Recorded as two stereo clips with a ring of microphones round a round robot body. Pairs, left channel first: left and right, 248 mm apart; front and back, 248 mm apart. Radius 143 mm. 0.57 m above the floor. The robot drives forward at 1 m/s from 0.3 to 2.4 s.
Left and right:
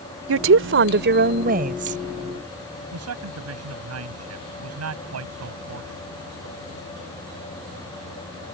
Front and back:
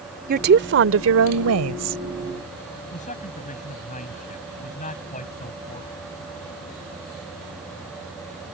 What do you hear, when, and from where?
0.3 s a woman speaking: 125° right; by 2.0 s 155° right
2.9 s a man speaking: 65° right